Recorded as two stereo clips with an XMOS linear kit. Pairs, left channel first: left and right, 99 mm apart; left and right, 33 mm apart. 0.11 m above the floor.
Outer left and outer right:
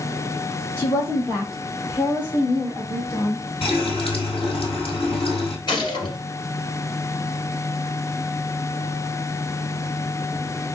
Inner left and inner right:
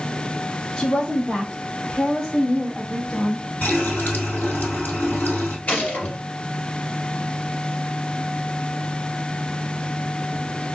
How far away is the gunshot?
About 2.5 m.